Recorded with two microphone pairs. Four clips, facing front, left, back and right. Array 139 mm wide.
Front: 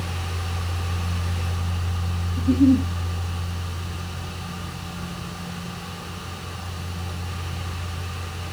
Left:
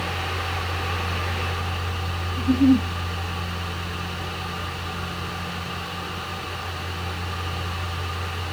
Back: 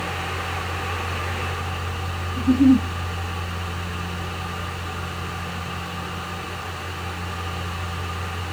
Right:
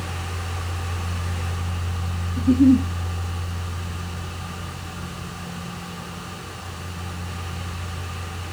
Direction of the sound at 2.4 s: 125° right.